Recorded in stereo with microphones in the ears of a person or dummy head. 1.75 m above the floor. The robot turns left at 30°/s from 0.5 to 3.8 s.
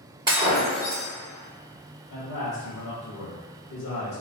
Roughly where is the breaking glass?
Right.